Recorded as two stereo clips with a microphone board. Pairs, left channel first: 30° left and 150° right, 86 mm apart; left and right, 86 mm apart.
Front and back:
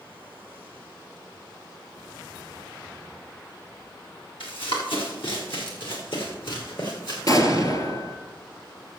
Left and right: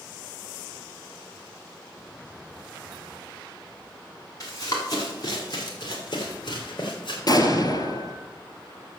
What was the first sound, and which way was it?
Running footsteps, 45° left.